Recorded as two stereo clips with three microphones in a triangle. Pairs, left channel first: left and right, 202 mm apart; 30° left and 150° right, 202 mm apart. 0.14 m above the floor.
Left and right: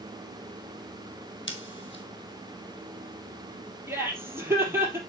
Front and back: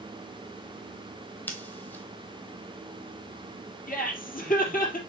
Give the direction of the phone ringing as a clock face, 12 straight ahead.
I don't hear a phone ringing.